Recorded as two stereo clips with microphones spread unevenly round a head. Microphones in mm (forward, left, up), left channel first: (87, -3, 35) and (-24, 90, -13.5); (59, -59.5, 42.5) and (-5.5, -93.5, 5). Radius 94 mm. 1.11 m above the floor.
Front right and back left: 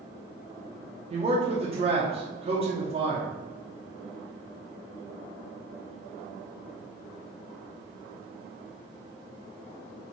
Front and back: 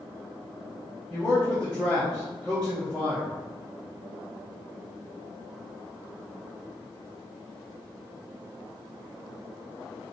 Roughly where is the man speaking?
Behind left.